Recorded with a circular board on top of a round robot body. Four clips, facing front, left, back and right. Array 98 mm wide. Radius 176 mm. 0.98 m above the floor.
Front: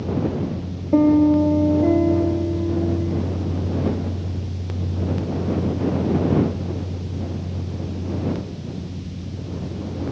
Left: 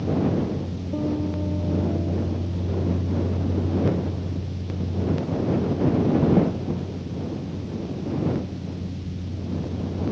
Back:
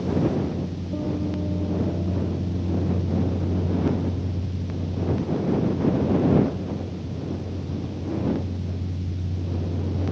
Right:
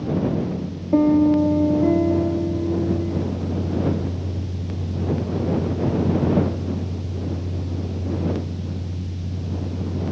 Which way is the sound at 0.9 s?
40° right.